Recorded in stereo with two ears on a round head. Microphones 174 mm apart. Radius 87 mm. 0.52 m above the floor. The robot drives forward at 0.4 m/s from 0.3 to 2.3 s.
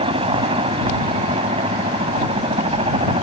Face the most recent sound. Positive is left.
turn(degrees=-25)  # may be behind; listen again after turning